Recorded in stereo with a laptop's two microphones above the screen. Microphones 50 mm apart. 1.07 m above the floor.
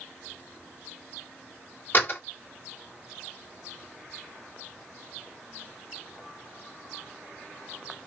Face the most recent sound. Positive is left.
turn(degrees=40)  # may be behind; listen again after turning